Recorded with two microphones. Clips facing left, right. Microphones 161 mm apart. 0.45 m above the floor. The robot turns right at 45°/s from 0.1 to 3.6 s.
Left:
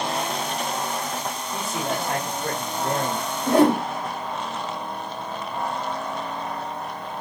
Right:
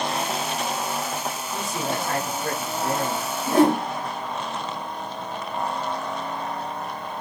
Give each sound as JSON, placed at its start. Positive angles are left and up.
{"t": 1.5, "sound": "a man speaking", "azimuth_deg": 5, "distance_m": 1.4}
{"t": 3.5, "sound": "a whoosh", "side_deg": 65, "distance_m": 1.4}